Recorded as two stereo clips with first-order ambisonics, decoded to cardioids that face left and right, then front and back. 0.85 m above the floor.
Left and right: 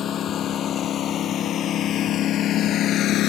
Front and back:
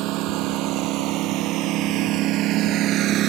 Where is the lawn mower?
150° left; by 3.3 s 135° left.